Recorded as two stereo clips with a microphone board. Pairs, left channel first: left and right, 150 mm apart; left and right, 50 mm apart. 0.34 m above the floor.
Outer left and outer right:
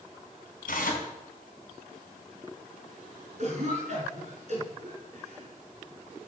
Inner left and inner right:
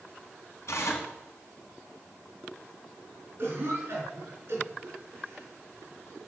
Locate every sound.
0.7 s tearing paper: 70° left (ahead or behind), 3.5 m
3.4 s a cough: 50° right (ahead or behind), 5 m